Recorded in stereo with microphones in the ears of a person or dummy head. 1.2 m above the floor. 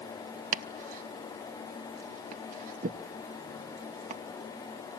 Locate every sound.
0.5 s chopping: 40° right (ahead or behind), 0.7 m